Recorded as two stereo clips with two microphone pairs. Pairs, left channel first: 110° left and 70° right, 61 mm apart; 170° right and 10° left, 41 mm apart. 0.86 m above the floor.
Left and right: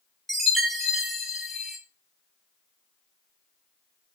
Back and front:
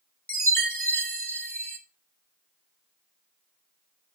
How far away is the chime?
About 0.9 m.